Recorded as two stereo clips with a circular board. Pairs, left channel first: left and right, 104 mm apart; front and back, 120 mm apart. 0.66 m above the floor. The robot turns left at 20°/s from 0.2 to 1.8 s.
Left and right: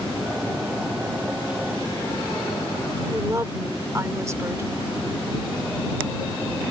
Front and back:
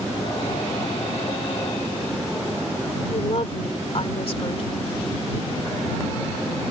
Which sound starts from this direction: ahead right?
A woman speaking, at 3.1 s.